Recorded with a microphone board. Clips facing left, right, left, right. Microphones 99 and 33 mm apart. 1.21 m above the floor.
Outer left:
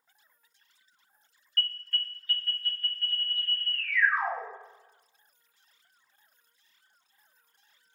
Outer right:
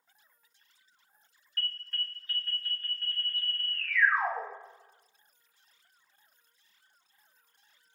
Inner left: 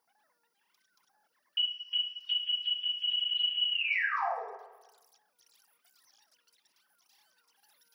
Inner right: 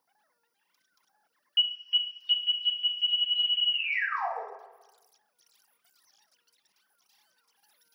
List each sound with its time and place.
1.6 s an alarm: 20° right (ahead or behind), 1.2 m